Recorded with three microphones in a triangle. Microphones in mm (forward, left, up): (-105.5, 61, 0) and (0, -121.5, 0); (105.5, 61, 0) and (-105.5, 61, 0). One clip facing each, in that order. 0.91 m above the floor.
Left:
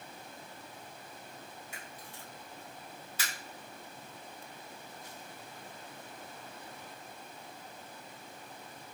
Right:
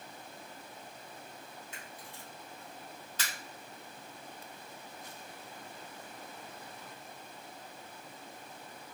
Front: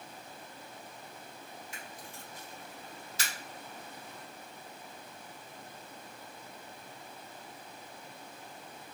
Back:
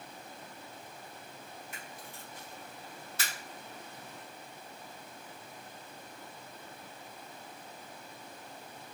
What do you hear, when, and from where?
1.7 s a camera shutter: 160° right, 1.3 m